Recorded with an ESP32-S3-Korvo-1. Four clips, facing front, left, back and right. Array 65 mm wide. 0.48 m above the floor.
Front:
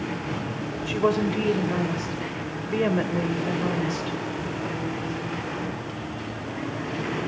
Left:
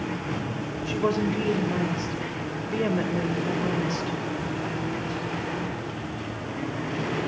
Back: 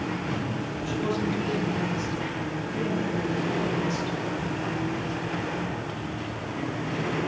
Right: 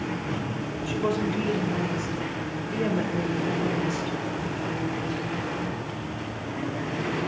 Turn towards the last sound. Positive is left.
turn(degrees=10)